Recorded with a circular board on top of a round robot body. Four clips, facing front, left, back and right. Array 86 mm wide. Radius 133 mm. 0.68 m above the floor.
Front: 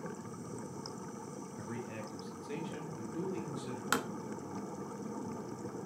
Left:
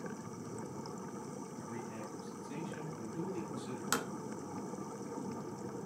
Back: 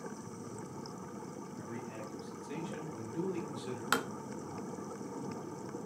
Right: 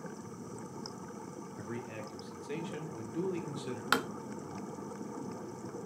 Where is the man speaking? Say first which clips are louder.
Right 5 dB, front 2 dB; 65° right, 3 m; by 3.8 s 100° right, 3 m.